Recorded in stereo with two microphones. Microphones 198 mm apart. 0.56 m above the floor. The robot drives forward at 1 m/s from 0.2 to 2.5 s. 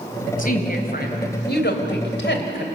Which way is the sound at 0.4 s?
45° left (ahead or behind).